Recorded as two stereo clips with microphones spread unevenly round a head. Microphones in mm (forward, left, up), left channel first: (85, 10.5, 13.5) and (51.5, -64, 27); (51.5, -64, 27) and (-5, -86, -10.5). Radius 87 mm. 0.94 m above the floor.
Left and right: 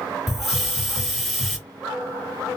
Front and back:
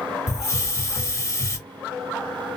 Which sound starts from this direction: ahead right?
A hiss, at 0.3 s.